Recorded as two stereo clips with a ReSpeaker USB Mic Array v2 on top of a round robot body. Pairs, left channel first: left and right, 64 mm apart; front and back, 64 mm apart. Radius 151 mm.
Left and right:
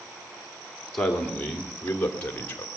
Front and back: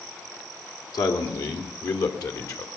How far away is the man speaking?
About 2.5 m.